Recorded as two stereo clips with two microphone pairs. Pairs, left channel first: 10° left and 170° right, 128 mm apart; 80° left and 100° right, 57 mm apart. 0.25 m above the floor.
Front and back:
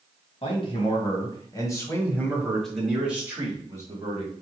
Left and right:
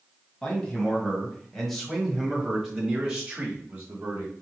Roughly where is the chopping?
I don't hear chopping.